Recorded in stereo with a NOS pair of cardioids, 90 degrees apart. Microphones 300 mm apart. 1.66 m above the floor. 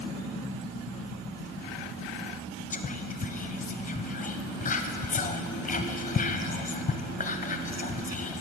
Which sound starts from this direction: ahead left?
Whispering, at 2.7 s.